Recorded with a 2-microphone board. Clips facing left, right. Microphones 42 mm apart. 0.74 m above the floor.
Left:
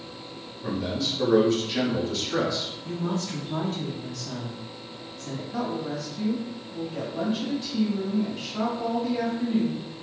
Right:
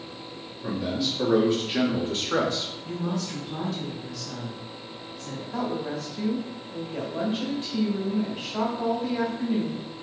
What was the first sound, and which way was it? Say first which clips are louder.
A man speaking: right 1 dB; 5° right (ahead or behind).